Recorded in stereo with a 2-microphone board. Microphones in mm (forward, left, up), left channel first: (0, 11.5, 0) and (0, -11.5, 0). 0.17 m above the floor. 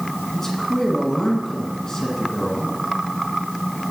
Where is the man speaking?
25° left (ahead or behind), 2.0 m.